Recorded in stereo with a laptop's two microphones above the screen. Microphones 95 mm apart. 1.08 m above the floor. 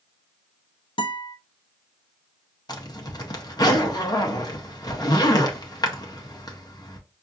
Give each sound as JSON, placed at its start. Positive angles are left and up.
{"t": 1.0, "sound": "a guitar", "side_deg": 60, "distance_m": 0.6}
{"t": 2.7, "sound": "a zipper", "side_deg": 40, "distance_m": 0.8}